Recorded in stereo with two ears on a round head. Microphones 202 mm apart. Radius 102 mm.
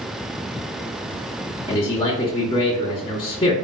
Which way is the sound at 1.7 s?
20° left (ahead or behind).